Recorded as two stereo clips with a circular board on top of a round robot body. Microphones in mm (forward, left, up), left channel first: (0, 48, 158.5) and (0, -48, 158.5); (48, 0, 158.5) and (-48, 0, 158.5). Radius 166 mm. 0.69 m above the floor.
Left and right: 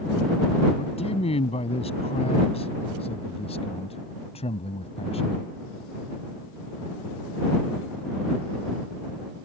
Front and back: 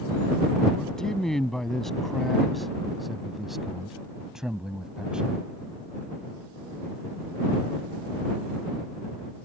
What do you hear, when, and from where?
0.8 s a man speaking: 85° left; by 5.5 s 100° left